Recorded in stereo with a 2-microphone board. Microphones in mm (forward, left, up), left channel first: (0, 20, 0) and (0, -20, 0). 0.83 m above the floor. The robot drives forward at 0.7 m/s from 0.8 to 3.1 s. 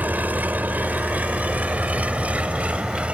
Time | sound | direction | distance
0.0 | an engine running | 50° right (ahead or behind) | ?